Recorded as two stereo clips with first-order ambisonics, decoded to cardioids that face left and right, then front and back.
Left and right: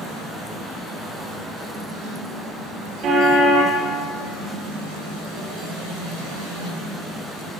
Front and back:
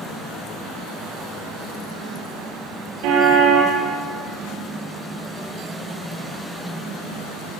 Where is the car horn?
150° right, 9 m.